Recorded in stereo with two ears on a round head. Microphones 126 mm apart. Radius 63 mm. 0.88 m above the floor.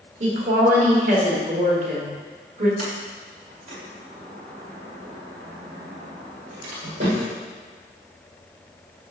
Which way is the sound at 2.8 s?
55° right (ahead or behind).